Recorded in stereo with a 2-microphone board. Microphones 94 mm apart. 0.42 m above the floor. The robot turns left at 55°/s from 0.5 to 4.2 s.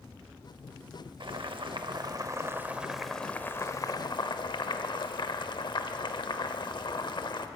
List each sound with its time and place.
1.2 s boiling: 80° right, 0.7 m; by 7.5 s 115° left, 0.7 m